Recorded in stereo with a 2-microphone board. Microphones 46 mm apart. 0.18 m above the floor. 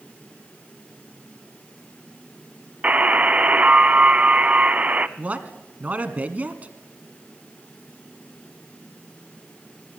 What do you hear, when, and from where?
2.8 s a buzzer: 30° right (ahead or behind), 0.7 m
5.2 s a man speaking: 35° right (ahead or behind), 1.5 m